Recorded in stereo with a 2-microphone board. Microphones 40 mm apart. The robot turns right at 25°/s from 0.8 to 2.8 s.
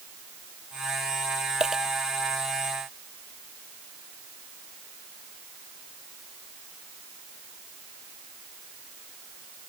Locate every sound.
1.6 s a dropped coin: 15° right (ahead or behind); by 1.8 s 10° right (ahead or behind)